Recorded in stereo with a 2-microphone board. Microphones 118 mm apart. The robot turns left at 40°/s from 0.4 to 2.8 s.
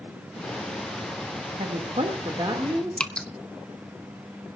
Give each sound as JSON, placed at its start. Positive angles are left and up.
{"t": 1.6, "sound": "a woman speaking", "azimuth_deg": -100, "distance_m": 2.0}
{"t": 3.0, "sound": "dripping", "side_deg": 10, "distance_m": 0.7}